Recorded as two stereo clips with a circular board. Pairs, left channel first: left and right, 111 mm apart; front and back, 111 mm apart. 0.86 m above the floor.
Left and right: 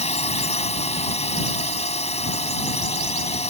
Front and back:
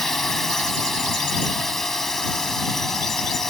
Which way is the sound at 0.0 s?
85° left.